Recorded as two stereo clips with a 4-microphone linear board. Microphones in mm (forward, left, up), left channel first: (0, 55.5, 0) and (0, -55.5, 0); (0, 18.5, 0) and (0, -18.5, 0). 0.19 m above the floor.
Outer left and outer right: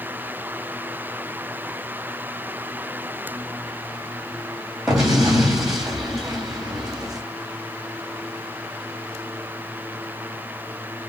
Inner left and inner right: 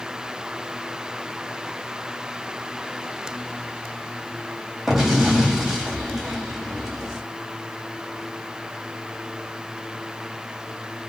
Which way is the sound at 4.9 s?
5° right (ahead or behind).